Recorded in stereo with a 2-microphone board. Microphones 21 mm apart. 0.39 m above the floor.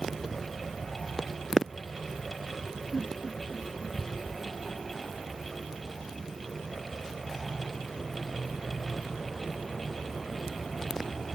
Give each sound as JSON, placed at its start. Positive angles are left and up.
{"t": 2.9, "sound": "a giggle", "side_deg": 65, "distance_m": 8.5}